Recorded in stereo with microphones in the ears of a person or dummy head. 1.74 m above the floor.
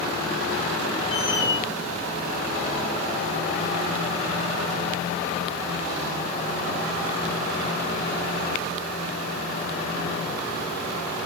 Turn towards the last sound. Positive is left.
turn(degrees=45)  # may be behind; listen again after turning